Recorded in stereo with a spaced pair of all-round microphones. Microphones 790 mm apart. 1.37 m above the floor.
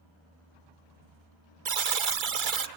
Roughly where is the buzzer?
Right.